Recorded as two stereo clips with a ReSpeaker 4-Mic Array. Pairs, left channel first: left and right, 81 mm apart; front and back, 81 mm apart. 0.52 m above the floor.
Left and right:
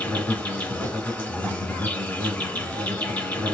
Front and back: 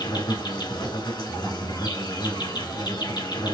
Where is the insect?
15° left, 2.5 m.